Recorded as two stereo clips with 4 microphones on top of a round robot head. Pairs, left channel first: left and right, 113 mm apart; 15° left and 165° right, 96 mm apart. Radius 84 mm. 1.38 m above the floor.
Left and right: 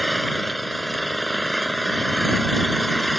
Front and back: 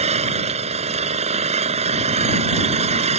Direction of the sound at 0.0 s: Straight behind.